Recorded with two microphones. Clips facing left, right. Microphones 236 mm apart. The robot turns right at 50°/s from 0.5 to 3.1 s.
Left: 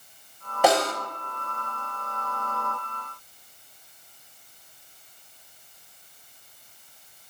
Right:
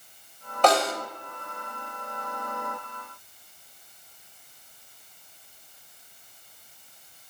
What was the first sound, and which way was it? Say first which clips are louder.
A snare drum: left 1 dB; 10° left (ahead or behind).